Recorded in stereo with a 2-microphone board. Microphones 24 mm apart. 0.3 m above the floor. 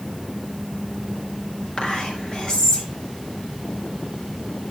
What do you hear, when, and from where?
1.8 s whispering: 25° left (ahead or behind), 4 m